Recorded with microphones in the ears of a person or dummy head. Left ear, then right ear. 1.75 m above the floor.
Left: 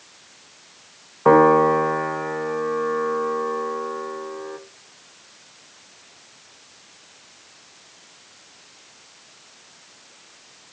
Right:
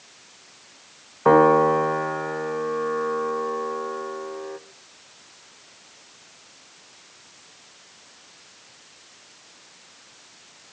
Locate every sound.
1.2 s a piano: 10° right (ahead or behind), 0.6 m